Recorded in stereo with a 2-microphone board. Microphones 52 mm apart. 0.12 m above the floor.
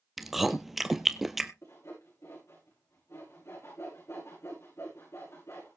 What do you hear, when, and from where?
0.2 s chewing: 5° right (ahead or behind), 1.0 m
1.6 s sawing: 70° left (ahead or behind), 7.5 m